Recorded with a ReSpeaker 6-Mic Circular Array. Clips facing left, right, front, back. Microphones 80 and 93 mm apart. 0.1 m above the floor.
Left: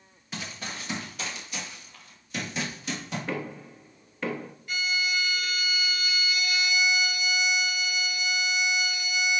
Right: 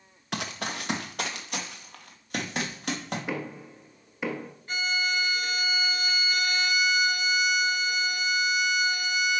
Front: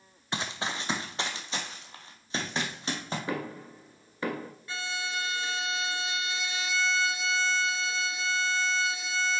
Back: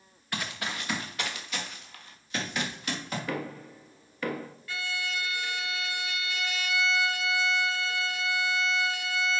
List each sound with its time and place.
0.3 s running footsteps: 65° right, 0.9 m; by 3.2 s 60° right, 3 m
3.3 s knocking: 25° right, 1.2 m
4.7 s a violin: 55° right, 0.7 m